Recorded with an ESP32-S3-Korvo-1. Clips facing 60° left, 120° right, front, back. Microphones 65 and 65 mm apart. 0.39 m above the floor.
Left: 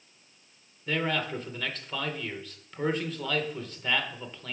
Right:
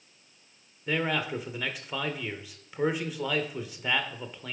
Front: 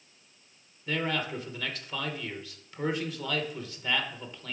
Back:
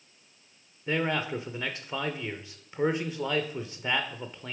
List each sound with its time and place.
0.9 s a man speaking: straight behind, 0.8 m